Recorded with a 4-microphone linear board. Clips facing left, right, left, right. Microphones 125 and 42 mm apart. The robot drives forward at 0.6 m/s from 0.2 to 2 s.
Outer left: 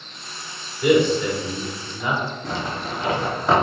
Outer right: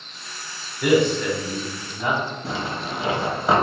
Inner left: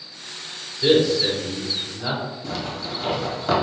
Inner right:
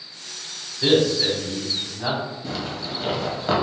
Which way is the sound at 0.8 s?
55° right (ahead or behind).